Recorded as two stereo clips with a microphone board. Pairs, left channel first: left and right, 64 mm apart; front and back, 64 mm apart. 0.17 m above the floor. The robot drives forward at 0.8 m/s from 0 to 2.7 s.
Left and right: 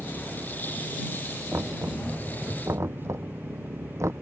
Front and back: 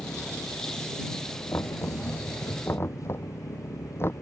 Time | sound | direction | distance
0.0 | an engine running | 30° right | ?
1.5 | knocking | 45° right | ?